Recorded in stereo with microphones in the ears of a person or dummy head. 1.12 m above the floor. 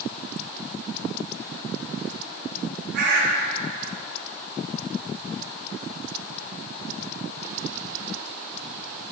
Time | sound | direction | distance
2.9 | a bird | 65° right (ahead or behind) | 6 m